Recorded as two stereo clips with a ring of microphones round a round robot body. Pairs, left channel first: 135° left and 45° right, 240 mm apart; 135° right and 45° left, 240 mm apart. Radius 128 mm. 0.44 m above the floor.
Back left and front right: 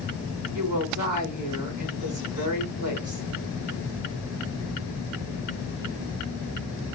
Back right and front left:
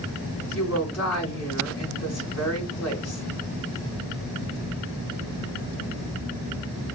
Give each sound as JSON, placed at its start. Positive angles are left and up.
{"t": 0.5, "sound": "a woman speaking", "azimuth_deg": -100, "distance_m": 3.5}